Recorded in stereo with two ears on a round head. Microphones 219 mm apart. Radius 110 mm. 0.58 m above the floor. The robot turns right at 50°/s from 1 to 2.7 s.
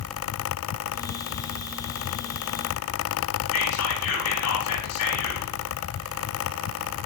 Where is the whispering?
75° left (ahead or behind), 4.5 m.